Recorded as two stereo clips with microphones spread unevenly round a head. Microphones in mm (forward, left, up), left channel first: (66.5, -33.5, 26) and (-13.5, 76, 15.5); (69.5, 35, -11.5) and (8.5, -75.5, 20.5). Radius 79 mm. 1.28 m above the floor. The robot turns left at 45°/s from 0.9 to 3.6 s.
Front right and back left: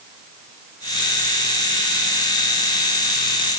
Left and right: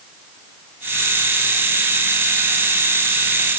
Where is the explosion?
I don't hear an explosion.